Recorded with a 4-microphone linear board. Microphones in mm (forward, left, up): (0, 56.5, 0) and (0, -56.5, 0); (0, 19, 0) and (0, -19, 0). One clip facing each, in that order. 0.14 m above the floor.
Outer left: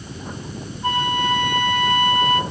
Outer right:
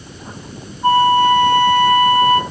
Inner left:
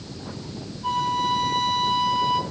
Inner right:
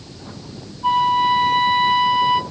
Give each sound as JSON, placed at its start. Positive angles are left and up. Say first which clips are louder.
{"t": 0.8, "sound": "a flute", "louder": "outer right 10 dB, inner right 7 dB", "side_deg": -35, "distance_m": 0.5}